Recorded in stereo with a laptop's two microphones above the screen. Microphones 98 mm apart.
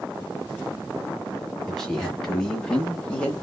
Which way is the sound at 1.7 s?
5° left (ahead or behind).